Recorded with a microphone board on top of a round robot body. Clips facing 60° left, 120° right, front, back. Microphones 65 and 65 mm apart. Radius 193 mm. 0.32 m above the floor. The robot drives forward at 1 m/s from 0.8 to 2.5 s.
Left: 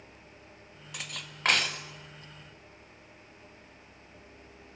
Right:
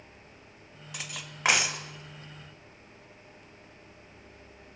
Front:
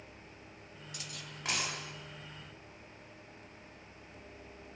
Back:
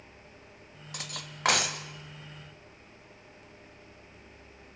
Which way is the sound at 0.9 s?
150° left.